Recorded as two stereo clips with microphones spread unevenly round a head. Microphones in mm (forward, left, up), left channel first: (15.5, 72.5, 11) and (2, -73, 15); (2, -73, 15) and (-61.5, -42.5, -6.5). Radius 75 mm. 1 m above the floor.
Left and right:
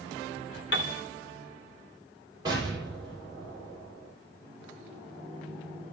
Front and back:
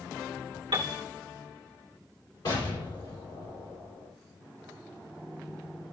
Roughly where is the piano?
Left.